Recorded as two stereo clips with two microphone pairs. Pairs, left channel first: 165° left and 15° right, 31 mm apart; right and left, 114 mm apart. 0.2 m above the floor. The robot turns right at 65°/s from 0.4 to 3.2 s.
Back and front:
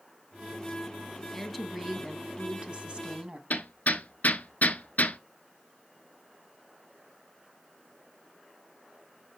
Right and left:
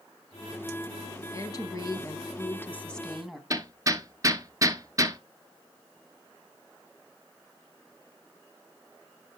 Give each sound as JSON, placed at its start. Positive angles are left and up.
{"t": 1.3, "sound": "a woman speaking", "azimuth_deg": -120, "distance_m": 1.3}
{"t": 3.5, "sound": "hammering", "azimuth_deg": 145, "distance_m": 0.8}